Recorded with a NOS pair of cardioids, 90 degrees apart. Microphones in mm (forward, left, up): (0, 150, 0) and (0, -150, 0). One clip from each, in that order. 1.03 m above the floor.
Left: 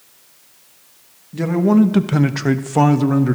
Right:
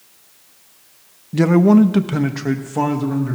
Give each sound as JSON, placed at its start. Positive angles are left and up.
{"t": 1.3, "sound": "a man speaking", "azimuth_deg": -35, "distance_m": 0.7}